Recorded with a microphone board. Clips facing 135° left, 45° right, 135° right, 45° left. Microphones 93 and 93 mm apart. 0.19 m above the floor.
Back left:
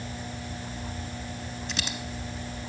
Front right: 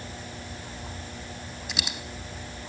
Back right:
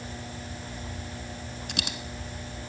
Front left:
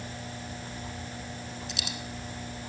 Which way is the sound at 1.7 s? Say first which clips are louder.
Even, back right 6 dB; 125° right.